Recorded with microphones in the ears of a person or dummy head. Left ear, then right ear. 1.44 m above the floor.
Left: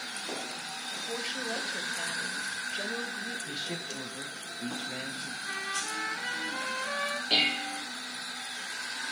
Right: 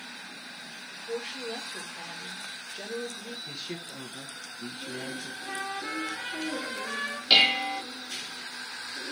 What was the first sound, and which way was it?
A woman speaking, centre (ahead or behind).